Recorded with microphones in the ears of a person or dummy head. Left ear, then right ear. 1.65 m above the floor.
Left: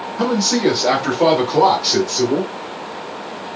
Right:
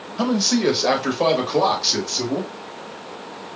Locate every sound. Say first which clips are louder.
0.2 s a man speaking: left 3 dB; 50° right (ahead or behind), 1.3 m; by 2.5 s 30° right (ahead or behind), 2.5 m